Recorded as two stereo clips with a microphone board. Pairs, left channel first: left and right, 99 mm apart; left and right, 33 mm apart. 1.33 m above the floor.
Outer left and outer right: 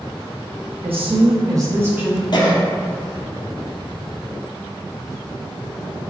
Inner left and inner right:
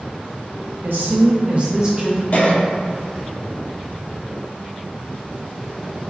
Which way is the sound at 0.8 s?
75° right (ahead or behind).